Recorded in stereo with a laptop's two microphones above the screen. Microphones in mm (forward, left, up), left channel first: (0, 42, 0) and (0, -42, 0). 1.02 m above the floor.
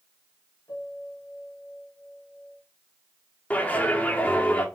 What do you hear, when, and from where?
0.7 s a piano: 45° left (ahead or behind), 6 m
3.5 s a clap: 15° left (ahead or behind), 2.5 m